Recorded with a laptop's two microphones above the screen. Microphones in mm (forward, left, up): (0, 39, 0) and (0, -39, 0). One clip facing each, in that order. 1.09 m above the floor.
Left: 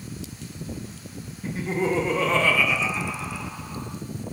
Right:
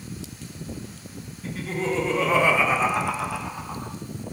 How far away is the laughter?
About 1.7 m.